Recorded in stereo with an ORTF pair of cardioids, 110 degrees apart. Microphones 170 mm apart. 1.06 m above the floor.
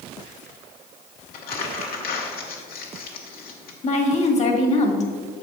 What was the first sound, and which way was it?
Crumpling, 65° left.